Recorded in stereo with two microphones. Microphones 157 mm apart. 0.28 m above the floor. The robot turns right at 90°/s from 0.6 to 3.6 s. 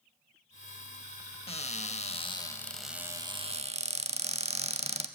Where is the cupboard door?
60° left, 0.5 m; by 5.1 s 110° right, 0.5 m.